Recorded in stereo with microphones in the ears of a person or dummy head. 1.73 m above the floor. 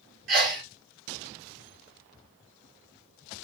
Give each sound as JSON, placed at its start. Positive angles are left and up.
{"t": 0.3, "sound": "a sneeze", "side_deg": -50, "distance_m": 2.5}